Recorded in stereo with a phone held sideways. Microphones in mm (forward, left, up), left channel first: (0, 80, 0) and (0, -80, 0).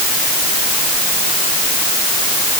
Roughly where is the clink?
No clink in this recording.